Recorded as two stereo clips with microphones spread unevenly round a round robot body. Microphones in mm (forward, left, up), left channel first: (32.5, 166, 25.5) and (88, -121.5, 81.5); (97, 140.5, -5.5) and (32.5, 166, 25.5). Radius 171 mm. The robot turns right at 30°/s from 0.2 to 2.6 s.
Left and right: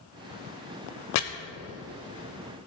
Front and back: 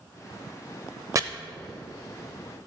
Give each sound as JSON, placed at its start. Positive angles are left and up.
{"t": 1.1, "sound": "chopping", "azimuth_deg": 100, "distance_m": 0.9}